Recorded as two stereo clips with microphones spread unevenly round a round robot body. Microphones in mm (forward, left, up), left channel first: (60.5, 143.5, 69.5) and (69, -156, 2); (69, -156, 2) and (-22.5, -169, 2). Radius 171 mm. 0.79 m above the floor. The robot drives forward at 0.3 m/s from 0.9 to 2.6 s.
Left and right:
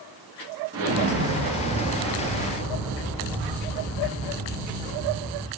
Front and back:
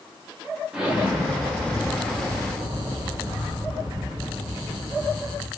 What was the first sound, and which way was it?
An explosion, 95° right.